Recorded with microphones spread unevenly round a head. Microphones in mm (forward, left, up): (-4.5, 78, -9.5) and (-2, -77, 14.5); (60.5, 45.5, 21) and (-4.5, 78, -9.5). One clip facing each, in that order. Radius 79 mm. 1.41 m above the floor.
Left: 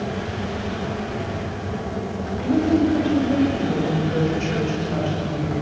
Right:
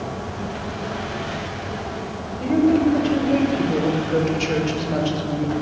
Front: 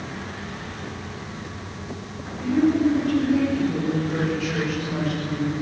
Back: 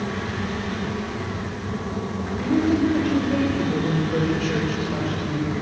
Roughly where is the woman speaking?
Behind.